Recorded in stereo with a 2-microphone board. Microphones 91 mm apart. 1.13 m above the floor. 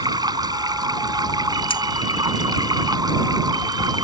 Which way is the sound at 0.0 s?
45° right (ahead or behind).